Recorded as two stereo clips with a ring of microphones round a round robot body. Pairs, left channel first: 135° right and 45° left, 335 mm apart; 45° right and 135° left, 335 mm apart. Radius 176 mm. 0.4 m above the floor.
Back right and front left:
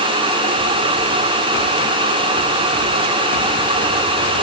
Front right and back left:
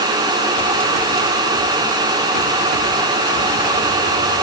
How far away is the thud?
I don't hear a thud.